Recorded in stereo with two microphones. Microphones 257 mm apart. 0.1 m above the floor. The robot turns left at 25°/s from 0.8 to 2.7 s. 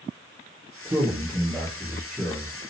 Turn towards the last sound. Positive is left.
turn(degrees=165)